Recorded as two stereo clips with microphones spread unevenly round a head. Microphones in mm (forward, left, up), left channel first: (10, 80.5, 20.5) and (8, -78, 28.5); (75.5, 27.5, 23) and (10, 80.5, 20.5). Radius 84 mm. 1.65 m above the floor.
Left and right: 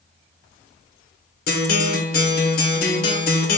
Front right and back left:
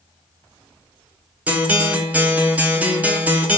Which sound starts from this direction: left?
A guitar, at 1.5 s.